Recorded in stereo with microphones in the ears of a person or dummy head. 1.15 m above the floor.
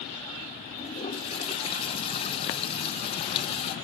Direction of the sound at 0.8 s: 30° left (ahead or behind).